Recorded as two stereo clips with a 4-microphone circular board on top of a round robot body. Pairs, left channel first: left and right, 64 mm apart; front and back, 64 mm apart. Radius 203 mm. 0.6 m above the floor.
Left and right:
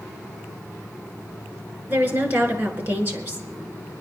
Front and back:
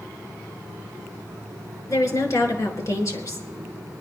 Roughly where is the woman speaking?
Ahead right.